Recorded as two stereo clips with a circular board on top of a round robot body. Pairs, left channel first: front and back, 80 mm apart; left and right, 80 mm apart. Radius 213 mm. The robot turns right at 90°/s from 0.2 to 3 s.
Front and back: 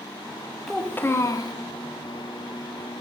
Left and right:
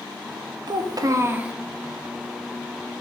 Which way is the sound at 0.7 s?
90° right.